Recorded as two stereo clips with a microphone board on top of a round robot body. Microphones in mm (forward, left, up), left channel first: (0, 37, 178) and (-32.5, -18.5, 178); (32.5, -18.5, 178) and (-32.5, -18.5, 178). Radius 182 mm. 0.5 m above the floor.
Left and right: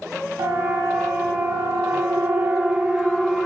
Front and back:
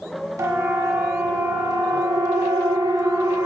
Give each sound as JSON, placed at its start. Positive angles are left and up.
{"t": 0.4, "sound": "a siren", "azimuth_deg": -145, "distance_m": 3.0}